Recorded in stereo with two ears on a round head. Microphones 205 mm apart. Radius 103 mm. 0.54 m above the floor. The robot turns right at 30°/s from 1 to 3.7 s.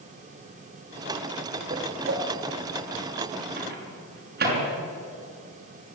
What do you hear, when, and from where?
1.7 s a whoosh: 40° right (ahead or behind), 2 m; by 2.3 s 50° right (ahead or behind), 2 m
3.6 s a microwave: 45° right (ahead or behind), 6 m